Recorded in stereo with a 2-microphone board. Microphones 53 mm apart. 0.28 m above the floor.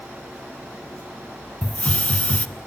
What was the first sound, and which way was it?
A hiss, 25° left (ahead or behind).